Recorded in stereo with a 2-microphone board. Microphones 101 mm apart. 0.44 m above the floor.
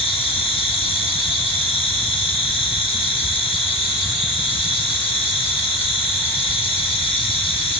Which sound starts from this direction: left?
An insect, at 0.0 s.